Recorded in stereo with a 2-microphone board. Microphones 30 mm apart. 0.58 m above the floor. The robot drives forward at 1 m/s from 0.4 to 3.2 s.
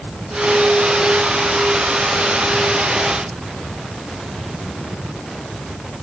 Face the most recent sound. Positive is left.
No sound to turn to.